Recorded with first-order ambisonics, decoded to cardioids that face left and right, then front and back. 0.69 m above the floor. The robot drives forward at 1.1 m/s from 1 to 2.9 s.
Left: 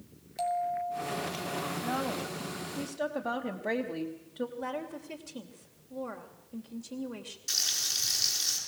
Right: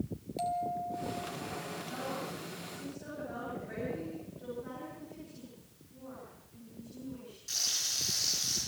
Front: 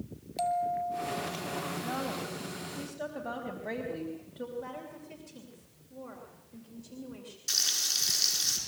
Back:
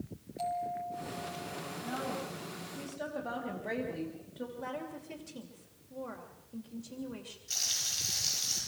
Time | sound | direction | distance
0.4 | a bell | 15° left | 1.8 m
1.8 | a woman speaking | 65° left | 3 m
4.6 | a woman speaking | 105° left | 3 m
7.5 | frying | 30° left | 8 m